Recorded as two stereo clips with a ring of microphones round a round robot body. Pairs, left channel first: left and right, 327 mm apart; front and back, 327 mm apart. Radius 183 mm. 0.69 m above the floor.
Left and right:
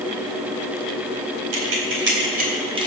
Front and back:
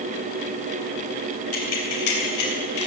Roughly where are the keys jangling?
Ahead right.